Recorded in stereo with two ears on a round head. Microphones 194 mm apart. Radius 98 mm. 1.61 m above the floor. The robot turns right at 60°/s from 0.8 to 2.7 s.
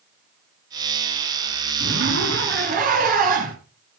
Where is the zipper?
105° right, 3.5 m; by 3.5 s 50° right, 3.5 m.